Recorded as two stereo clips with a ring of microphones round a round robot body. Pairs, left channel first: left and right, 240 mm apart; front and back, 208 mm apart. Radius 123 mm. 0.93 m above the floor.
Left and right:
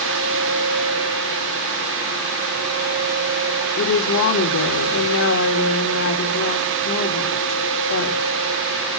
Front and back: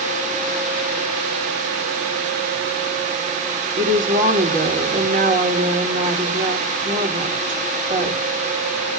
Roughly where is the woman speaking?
Behind left.